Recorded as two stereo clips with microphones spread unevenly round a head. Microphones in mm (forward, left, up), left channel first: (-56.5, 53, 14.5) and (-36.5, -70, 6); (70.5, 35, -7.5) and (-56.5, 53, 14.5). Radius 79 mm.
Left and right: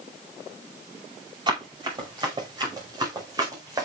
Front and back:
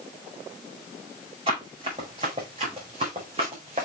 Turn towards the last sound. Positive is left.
turn(degrees=-140)